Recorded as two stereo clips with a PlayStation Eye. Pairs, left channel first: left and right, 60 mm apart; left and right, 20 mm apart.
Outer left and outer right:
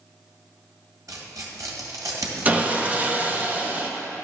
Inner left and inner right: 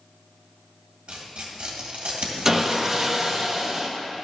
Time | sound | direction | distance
1.1 | tearing paper | 75° right (ahead or behind) | 1.7 m
2.5 | sawing | 25° right (ahead or behind) | 0.7 m